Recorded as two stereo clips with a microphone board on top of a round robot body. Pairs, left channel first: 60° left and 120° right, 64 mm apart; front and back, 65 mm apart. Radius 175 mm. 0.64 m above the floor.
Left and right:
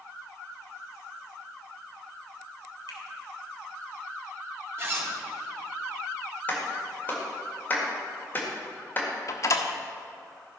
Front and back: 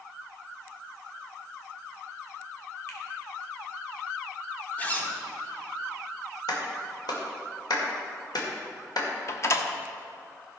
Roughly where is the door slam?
Ahead left.